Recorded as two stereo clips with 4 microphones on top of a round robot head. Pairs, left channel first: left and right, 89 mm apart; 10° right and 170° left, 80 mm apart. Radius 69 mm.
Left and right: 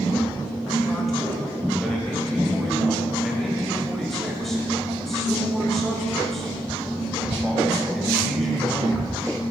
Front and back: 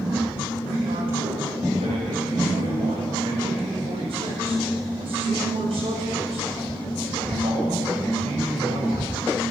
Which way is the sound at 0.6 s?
175° left.